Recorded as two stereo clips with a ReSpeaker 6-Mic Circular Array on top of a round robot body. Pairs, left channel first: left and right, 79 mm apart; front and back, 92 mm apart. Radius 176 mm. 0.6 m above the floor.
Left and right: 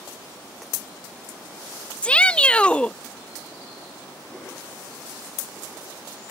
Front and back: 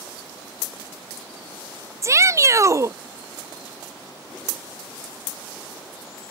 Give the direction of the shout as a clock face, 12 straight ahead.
7 o'clock.